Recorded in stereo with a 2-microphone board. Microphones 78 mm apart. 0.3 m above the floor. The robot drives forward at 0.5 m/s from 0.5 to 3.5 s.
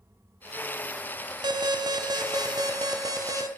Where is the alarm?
65° right (ahead or behind), 1.8 m; by 3.5 s 50° right (ahead or behind), 2 m.